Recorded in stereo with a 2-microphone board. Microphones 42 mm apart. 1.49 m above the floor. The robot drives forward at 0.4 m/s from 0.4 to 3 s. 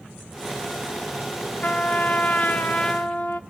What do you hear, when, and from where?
1.6 s a trumpet: 35° left (ahead or behind), 0.6 m